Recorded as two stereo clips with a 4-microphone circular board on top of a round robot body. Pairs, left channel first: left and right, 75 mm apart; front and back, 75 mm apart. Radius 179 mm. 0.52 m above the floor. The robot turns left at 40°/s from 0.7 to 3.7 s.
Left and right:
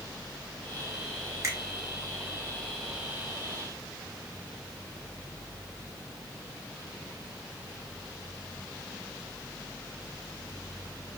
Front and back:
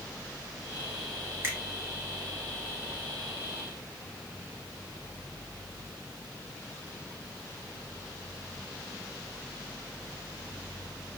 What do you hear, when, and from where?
1.4 s a finger snap: 130° right, 1.6 m; by 1.6 s 135° right, 1.6 m